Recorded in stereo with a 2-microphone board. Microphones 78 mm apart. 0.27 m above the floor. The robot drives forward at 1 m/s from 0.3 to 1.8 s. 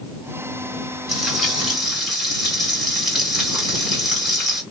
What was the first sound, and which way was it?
Frying, centre (ahead or behind).